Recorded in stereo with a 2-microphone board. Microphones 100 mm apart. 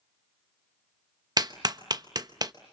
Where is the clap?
40° right (ahead or behind), 0.9 m.